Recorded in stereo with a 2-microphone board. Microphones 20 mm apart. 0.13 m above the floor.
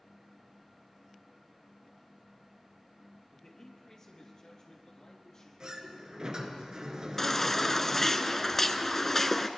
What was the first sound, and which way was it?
A man speaking, 20° left (ahead or behind).